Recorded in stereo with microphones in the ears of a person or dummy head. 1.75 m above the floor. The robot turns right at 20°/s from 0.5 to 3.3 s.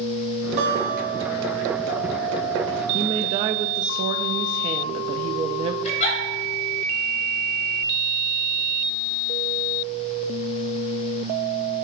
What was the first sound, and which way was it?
A guitar, 65° right (ahead or behind).